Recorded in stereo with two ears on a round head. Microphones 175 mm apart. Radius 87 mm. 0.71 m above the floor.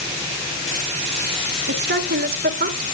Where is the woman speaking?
55° right (ahead or behind), 1.8 m; by 2.9 s 45° right (ahead or behind), 2.5 m.